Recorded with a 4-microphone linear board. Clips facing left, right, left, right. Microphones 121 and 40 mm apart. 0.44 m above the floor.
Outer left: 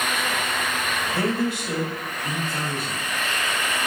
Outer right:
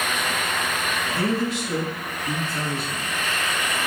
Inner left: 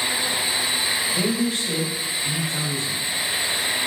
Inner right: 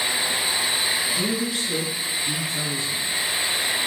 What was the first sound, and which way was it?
A man speaking, 60° left (ahead or behind).